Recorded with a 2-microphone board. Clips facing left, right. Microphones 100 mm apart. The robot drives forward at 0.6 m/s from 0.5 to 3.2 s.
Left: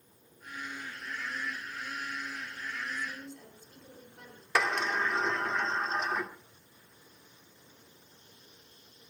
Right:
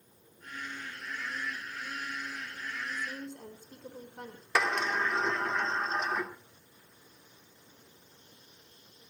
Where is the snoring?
No snoring in this recording.